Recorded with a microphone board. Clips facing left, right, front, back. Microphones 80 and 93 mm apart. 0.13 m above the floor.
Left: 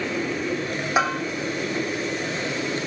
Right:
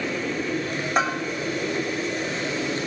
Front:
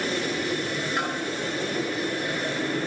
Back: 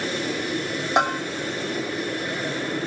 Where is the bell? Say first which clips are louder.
Left 1 dB, back 10 dB; 175° left, 3 m.